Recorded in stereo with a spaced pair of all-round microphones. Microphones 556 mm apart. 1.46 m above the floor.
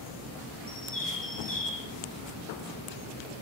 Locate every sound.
0.7 s a bird: 65° left (ahead or behind), 1.4 m